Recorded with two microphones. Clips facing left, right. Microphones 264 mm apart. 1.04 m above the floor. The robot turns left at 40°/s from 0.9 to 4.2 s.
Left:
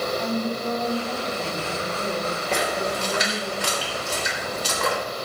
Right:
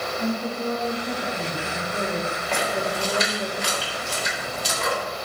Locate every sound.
0.2 s a woman speaking: 50° right, 2.5 m; by 3.5 s 155° right, 2.5 m
2.5 s a splash: 40° left (ahead or behind), 3.5 m; by 5.0 s 70° left (ahead or behind), 3.5 m